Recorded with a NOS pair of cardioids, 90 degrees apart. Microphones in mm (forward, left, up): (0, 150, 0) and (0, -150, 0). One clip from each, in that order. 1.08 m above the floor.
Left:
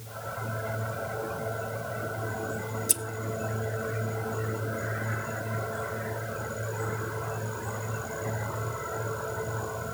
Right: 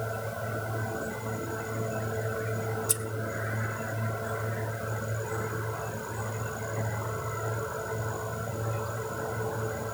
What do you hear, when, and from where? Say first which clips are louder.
2.9 s scissors: left 1 dB; 15° left, 0.7 m